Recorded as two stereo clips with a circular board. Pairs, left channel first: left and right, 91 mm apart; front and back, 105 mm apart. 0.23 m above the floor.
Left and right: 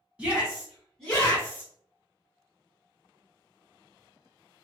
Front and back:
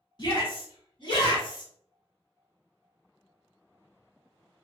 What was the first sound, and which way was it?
A shout, 20° right.